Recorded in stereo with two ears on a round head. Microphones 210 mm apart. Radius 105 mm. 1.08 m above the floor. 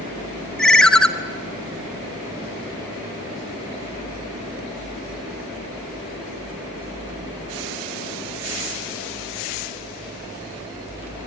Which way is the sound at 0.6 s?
5° left (ahead or behind).